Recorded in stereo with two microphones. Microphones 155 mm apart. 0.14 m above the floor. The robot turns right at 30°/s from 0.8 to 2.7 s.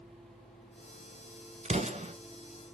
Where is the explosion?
45° right (ahead or behind), 1.0 m; by 2.1 s 40° right (ahead or behind), 1.0 m.